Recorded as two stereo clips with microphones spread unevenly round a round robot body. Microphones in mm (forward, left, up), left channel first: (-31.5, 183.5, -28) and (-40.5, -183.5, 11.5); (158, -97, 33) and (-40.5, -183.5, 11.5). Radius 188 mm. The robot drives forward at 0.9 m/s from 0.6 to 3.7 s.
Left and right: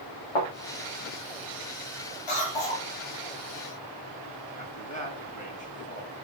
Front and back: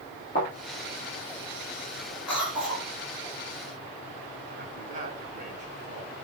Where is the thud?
95° left, 9 m.